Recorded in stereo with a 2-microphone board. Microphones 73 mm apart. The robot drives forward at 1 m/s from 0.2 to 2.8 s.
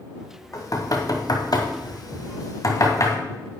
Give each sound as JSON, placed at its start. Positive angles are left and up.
{"t": 0.5, "sound": "knocking", "side_deg": 45, "distance_m": 2.0}